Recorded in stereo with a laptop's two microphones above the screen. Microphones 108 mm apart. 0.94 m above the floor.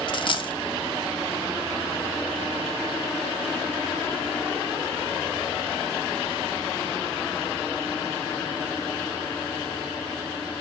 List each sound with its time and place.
0.1 s a dropped coin: 50° left (ahead or behind), 0.6 m